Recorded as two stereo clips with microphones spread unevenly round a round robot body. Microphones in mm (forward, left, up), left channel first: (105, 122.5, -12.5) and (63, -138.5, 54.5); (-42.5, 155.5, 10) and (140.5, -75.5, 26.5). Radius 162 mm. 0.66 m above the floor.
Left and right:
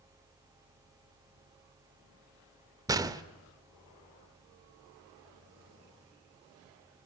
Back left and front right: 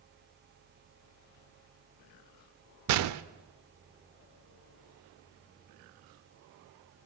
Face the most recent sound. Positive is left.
turn(degrees=-25)